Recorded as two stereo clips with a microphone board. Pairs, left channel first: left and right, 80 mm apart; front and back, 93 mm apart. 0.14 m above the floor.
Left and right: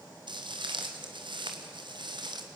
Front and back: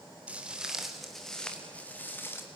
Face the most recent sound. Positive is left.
turn(degrees=-65)